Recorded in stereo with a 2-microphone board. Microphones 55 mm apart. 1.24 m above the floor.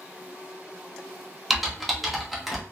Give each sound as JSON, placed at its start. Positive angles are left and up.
{"t": 1.5, "sound": "typing on a keyboard", "side_deg": 0, "distance_m": 0.7}